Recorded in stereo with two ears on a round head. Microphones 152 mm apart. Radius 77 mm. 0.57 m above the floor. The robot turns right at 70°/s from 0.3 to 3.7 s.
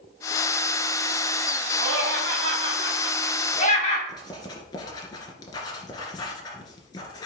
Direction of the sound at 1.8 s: 75° right (ahead or behind).